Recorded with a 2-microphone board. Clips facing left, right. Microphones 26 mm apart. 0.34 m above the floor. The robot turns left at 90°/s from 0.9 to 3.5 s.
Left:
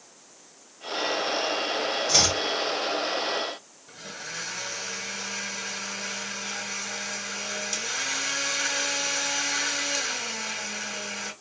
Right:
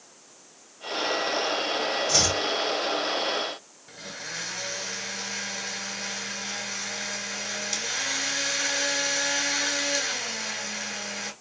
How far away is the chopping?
About 1.2 m.